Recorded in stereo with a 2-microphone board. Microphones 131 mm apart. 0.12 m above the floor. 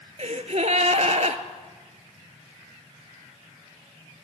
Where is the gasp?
60° right (ahead or behind), 0.6 m.